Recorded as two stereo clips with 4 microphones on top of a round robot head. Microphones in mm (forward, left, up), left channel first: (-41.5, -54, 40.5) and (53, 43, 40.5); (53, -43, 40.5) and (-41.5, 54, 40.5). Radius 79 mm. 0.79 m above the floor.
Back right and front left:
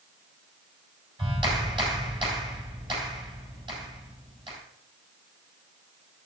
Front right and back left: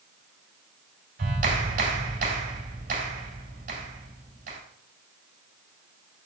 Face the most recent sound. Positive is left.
turn(degrees=105)